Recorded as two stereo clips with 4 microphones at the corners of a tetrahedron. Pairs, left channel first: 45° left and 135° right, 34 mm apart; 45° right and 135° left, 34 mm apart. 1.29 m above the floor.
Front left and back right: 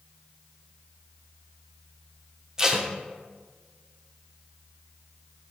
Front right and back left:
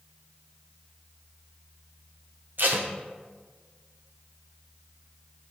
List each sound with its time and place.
2.6 s tape being pulled: 155° left, 0.9 m